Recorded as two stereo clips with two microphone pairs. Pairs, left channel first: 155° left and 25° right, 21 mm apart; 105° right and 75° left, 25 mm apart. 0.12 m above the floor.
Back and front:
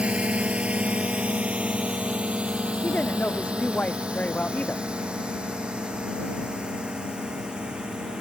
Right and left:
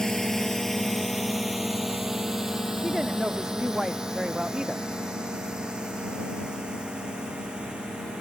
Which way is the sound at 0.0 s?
40° right.